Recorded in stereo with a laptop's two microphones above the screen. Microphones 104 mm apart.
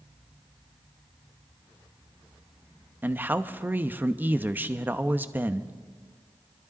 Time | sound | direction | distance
3.0 | a man speaking | 15° right (ahead or behind) | 0.9 m